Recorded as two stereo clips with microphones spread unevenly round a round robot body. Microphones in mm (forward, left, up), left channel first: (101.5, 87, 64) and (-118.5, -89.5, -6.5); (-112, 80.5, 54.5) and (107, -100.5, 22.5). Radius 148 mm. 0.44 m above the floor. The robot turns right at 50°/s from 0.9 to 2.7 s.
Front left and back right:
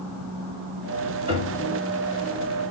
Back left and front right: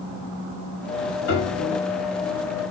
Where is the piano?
175° left, 1.6 m; by 1.8 s 160° right, 1.6 m.